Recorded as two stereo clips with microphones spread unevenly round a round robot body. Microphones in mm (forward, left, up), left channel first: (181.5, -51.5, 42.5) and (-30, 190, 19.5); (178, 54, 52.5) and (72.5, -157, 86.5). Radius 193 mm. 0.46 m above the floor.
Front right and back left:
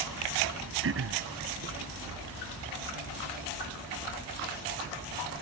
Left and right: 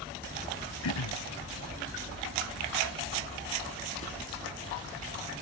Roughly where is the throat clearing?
Left.